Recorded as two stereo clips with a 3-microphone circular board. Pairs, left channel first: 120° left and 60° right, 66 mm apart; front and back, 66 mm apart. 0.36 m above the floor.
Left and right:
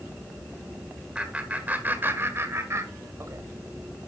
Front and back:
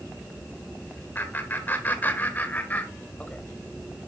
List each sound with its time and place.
1.1 s laughter: straight ahead, 1.6 m; by 3.4 s 60° right, 2 m